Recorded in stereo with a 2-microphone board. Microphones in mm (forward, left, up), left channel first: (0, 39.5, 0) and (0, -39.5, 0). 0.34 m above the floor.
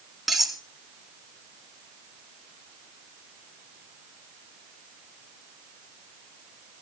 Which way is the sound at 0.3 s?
Centre (ahead or behind).